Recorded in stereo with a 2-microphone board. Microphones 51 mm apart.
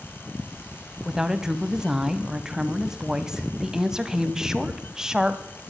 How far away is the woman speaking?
About 1.0 m.